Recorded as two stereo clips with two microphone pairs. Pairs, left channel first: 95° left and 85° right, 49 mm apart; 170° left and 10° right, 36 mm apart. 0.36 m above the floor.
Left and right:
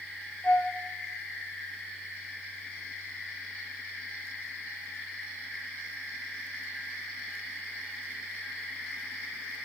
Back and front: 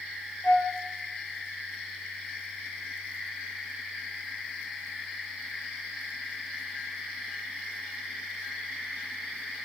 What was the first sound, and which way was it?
A flute, 150° left.